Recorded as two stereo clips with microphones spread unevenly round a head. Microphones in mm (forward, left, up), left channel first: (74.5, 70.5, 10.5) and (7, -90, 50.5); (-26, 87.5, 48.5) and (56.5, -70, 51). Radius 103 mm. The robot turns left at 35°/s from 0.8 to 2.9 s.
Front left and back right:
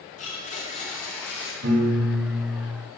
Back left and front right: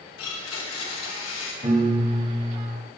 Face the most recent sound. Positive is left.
turn(degrees=-170)